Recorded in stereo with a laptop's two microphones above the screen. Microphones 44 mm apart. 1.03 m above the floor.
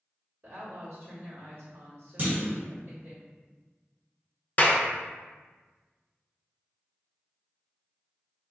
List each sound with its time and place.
0.4 s a woman speaking: 55° right (ahead or behind), 1.4 m
2.2 s a clunk: 45° right (ahead or behind), 1.2 m
4.6 s a clap: 40° left (ahead or behind), 0.6 m